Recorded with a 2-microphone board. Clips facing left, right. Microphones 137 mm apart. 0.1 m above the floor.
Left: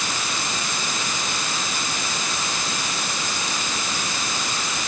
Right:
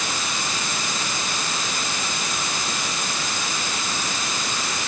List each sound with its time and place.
Only background noise.